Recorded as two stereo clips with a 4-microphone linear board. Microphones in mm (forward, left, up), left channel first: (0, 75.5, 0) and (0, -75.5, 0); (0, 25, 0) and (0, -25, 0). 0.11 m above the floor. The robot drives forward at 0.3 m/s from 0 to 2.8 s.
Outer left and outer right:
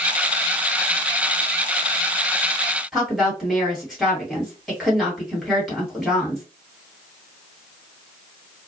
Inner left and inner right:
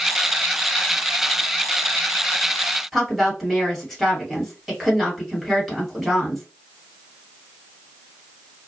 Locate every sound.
2.9 s a woman speaking: centre (ahead or behind), 2 m